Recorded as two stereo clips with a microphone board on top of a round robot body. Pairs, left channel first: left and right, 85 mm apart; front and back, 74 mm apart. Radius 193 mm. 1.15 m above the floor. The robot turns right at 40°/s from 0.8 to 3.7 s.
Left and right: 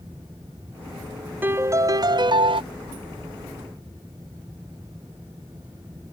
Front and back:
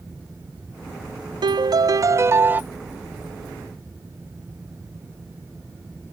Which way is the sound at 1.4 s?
160° right.